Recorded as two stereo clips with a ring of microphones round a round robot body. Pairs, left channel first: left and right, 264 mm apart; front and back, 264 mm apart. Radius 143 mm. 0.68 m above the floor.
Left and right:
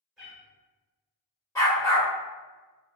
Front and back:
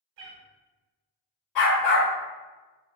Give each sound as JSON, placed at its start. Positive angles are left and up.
{"t": 0.2, "sound": "a cat meowing", "azimuth_deg": 180, "distance_m": 1.3}
{"t": 1.6, "sound": "a dog barking", "azimuth_deg": 10, "distance_m": 1.6}